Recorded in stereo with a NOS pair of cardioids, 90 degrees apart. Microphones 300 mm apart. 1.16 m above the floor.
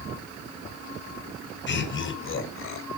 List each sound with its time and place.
1.7 s laughter: 40° left, 5 m; by 2.9 s 45° left, 5 m